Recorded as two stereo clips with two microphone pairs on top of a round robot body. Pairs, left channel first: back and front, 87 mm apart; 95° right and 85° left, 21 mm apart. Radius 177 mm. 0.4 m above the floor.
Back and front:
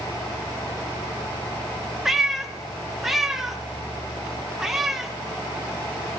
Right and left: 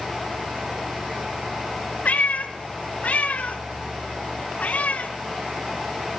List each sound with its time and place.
2.0 s a cat meowing: 85° right, 1.1 m